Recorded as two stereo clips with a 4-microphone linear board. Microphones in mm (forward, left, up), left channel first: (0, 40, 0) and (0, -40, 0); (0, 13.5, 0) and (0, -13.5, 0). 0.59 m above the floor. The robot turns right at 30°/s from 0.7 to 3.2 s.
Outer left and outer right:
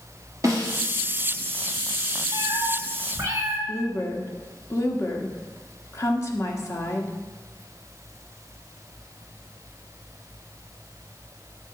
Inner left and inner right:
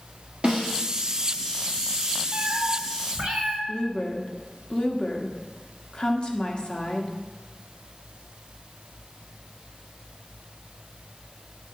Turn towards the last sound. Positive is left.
turn(degrees=40)  # may be behind; listen again after turning